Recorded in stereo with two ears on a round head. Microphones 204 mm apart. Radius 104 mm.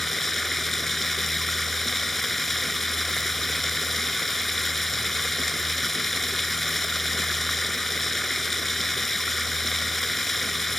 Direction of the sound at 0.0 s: Centre (ahead or behind).